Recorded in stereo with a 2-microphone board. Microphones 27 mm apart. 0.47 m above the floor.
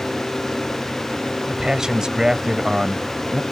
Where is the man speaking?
30° right (ahead or behind).